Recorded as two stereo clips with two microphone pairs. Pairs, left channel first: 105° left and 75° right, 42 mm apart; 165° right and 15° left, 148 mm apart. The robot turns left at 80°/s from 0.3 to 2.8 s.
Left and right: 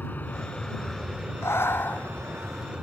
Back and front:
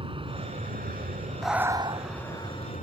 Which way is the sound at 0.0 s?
65° left.